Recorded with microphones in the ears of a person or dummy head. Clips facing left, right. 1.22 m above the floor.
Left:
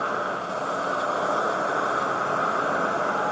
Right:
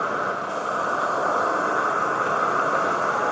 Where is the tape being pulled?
No tape being pulled in this recording.